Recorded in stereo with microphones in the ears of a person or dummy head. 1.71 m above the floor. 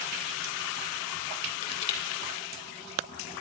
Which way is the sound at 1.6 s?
35° left (ahead or behind).